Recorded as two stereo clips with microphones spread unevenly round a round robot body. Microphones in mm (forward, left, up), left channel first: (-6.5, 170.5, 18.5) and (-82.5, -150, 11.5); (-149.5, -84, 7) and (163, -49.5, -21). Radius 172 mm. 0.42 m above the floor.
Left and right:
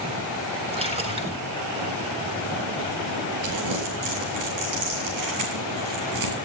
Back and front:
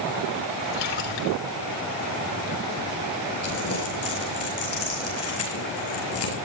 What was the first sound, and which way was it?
A splash, 175° right.